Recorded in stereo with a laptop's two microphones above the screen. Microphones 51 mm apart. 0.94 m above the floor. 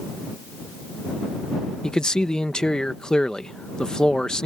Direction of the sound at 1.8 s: 15° left (ahead or behind).